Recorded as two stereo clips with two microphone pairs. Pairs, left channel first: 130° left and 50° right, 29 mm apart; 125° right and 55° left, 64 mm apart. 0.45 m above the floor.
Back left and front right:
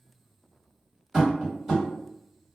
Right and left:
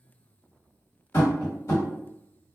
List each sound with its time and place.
1.1 s tapping: 130° right, 1.8 m